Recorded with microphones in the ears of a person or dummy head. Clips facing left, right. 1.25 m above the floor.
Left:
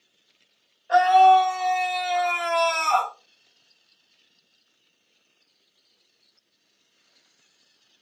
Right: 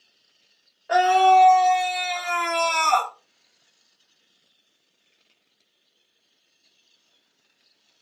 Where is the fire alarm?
No fire alarm in this recording.